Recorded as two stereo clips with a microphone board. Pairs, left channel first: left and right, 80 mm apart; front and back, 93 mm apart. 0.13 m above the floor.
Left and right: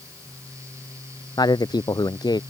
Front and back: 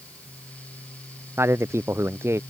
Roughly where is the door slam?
I don't hear a door slam.